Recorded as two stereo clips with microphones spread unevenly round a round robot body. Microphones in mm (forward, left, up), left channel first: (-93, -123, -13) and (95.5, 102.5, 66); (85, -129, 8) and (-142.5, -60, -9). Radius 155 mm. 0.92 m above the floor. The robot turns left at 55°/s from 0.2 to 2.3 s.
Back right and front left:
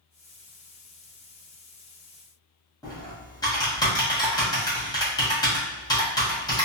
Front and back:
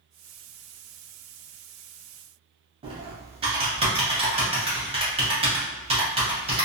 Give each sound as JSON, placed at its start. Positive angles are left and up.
{"t": 2.8, "sound": "typing on a keyboard", "azimuth_deg": -165, "distance_m": 1.0}